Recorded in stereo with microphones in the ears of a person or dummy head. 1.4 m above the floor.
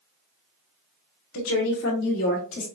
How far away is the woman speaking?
About 1.0 m.